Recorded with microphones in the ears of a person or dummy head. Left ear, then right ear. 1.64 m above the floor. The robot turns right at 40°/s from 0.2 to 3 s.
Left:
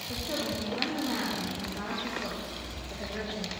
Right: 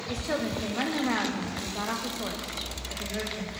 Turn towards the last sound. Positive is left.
turn(degrees=0)